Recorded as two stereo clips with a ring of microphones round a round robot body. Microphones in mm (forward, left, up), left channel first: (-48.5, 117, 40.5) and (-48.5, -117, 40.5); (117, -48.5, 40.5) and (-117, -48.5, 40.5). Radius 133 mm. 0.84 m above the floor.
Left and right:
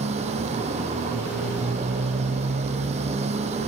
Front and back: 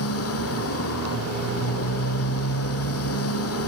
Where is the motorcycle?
25° right.